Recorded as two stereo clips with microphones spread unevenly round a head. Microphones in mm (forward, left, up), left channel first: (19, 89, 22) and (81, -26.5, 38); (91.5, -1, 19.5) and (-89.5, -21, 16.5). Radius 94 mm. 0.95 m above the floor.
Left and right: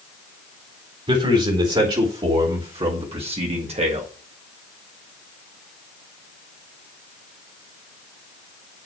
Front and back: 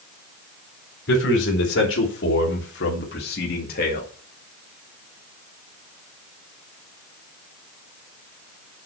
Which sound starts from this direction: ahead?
A man speaking, at 1.1 s.